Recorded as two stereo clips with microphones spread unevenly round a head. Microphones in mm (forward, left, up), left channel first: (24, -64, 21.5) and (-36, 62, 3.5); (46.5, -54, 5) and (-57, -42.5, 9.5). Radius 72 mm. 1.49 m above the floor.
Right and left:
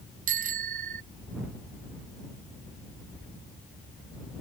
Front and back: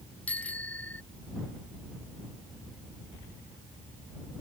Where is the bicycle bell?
75° left.